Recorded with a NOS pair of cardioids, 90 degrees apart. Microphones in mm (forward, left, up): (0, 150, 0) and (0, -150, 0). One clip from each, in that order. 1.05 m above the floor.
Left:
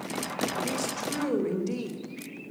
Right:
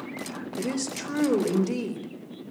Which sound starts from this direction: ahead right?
A woman speaking, at 0.6 s.